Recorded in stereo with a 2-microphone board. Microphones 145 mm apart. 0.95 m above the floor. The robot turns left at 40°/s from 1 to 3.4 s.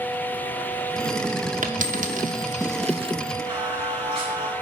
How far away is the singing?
About 4.5 m.